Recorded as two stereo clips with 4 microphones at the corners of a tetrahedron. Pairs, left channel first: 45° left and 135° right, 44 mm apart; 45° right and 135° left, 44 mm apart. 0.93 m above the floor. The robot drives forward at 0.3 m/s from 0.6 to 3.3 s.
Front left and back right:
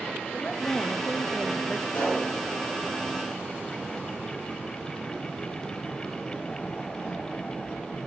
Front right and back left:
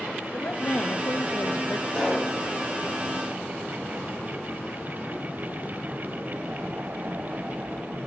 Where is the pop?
30° left, 6 m.